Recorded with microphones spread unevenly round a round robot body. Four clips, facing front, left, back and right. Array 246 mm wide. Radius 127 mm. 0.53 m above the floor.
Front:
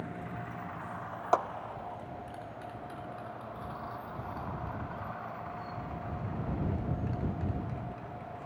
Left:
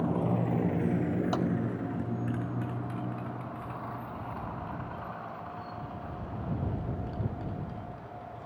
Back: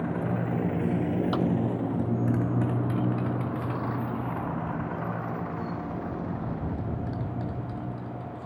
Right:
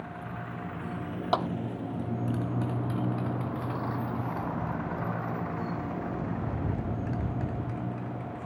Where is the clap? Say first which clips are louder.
Right 7 dB, front 3 dB; 30° right.